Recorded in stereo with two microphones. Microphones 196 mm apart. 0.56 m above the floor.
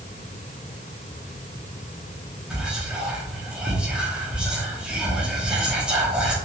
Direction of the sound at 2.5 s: 5° right (ahead or behind).